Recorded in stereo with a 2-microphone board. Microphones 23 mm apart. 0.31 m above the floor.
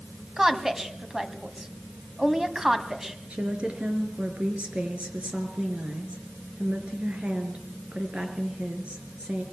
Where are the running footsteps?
No running footsteps in this recording.